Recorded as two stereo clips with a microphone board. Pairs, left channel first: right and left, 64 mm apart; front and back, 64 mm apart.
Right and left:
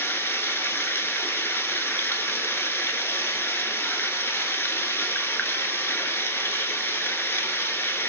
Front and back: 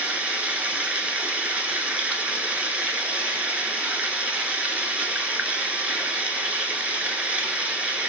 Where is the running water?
120° right, 0.7 m.